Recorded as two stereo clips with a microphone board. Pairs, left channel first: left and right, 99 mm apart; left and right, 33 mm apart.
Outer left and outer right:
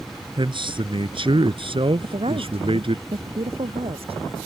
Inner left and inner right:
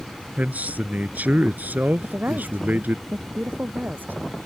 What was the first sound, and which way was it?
A man speaking, 55° right (ahead or behind).